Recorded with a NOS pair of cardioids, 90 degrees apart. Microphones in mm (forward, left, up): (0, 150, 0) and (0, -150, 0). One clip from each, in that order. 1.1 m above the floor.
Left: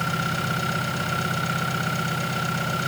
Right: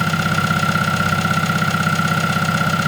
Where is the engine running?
60° right, 5 m.